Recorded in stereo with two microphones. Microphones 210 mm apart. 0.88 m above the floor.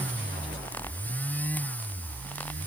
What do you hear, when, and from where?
Only background noise.